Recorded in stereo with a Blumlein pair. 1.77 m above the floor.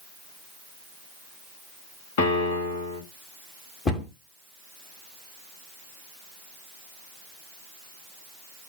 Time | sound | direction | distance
2.2 | a piano | 50° left | 1.3 m
3.9 | a cupboard door | 20° left | 1.1 m